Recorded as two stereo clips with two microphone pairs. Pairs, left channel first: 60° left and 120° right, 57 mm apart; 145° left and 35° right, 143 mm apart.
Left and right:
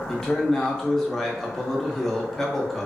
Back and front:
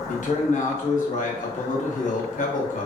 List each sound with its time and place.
0.1 s a man speaking: 140° left, 0.7 m